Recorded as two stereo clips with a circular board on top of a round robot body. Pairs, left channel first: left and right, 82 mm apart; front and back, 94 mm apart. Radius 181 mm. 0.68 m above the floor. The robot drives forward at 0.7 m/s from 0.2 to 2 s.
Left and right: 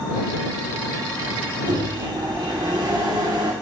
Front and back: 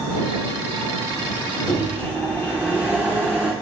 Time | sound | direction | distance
1.7 | a microwave | 95° right | 1.4 m